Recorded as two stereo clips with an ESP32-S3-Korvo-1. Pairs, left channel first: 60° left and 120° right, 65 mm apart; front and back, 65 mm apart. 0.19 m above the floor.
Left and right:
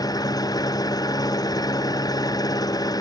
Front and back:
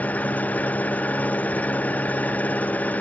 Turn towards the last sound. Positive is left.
turn(degrees=65)